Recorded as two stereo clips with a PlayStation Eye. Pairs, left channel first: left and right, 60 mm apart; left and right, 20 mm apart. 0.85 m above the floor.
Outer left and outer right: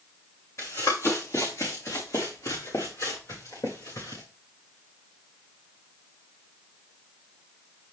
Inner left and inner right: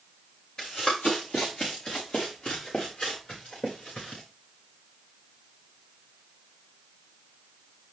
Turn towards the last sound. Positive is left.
turn(degrees=75)  # may be behind; listen again after turning